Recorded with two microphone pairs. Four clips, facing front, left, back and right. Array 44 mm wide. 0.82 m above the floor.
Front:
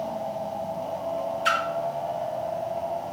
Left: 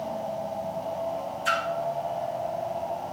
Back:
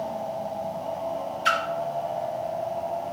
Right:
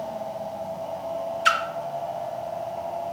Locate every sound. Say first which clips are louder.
1.4 s a splash: right 5 dB, back 1 dB; 95° right, 1.2 m